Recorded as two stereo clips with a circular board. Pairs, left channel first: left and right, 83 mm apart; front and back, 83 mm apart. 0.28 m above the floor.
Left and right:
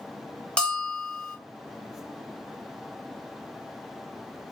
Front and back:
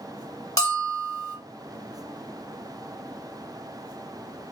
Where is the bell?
20° left, 1.1 m.